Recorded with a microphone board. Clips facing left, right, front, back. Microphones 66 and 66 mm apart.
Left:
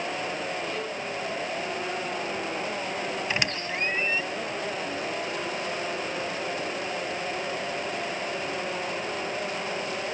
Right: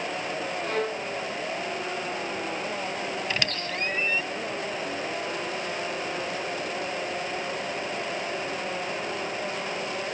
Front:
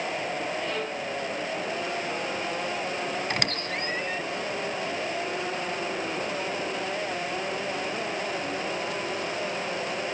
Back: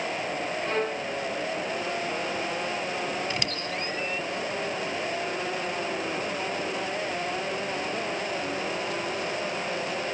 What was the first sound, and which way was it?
A violin, 125° right.